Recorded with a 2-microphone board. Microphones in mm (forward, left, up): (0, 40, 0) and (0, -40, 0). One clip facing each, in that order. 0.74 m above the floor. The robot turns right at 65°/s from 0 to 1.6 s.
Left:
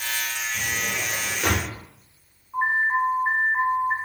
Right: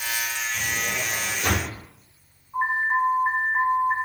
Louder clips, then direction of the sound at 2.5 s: Left 1 dB; 15° left (ahead or behind).